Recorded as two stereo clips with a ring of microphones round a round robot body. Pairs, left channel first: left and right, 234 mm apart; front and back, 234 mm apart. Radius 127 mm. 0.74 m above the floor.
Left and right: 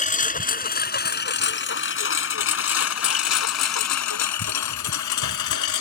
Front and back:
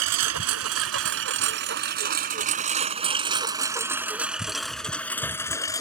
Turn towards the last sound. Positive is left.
turn(degrees=75)